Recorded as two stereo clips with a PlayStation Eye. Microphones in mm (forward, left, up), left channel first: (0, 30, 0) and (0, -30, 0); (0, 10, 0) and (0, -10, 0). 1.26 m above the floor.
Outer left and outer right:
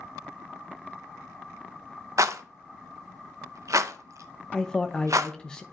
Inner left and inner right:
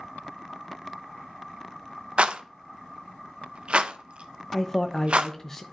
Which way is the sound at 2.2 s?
60° right (ahead or behind).